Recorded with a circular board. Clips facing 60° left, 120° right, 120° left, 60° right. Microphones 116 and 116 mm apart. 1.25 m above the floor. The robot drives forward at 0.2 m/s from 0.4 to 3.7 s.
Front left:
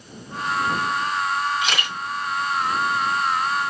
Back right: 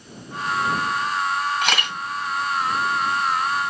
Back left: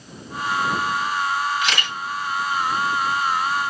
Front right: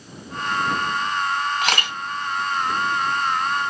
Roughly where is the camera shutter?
Right.